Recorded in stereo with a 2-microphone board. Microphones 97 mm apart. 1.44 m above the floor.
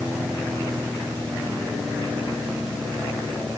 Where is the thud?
I don't hear a thud.